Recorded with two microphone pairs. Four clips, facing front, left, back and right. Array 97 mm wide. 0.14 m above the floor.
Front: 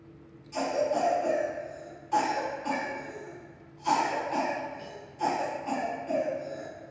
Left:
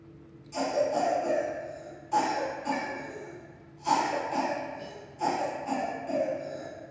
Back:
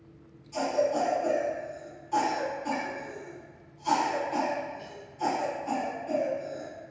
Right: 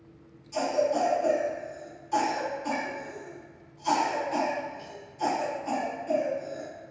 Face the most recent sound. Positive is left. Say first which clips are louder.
# right 2 dB, back 1 dB
turn(degrees=5)